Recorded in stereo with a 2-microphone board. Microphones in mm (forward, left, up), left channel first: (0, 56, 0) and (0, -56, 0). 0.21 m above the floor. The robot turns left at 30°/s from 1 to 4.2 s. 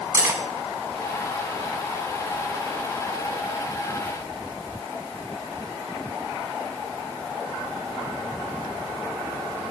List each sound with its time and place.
0.1 s cutlery clinking: 25° right (ahead or behind), 1.1 m